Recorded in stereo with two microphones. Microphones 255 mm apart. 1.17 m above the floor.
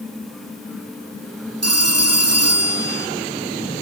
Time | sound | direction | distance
1.6 | a phone ringing | 75° right (ahead or behind) | 6 m